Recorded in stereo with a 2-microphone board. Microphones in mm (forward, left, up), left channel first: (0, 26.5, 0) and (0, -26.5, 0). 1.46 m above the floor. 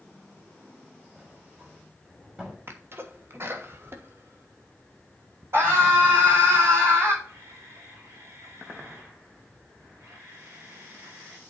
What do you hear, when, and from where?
1.1 s a sliding door: 20° right (ahead or behind), 4 m
2.7 s a sneeze: 45° right (ahead or behind), 1.4 m
5.5 s a scream: 50° right (ahead or behind), 5 m
7.2 s a camera shutter: 75° right (ahead or behind), 3.5 m